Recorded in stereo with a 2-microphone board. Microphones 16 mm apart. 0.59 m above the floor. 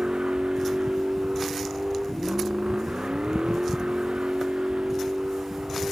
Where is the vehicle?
75° right (ahead or behind); by 5.9 s 85° right.